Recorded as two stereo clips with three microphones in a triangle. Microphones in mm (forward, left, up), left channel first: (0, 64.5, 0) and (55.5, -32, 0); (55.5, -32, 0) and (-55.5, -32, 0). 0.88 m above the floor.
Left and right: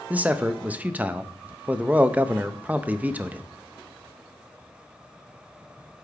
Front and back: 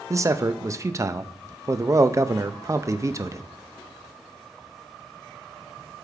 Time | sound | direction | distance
0.1 | a man speaking | 130° right | 0.5 m